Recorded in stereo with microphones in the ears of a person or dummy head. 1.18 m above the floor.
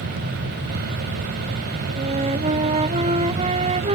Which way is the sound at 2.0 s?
35° right (ahead or behind).